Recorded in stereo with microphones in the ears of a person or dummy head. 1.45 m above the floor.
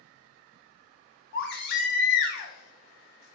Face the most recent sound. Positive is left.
turn(degrees=60)  # may be behind; listen again after turning